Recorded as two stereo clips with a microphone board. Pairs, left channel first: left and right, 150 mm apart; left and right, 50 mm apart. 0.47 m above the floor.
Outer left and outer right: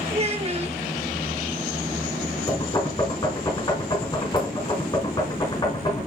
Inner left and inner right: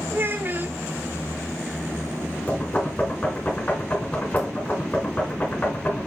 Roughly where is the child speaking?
Right.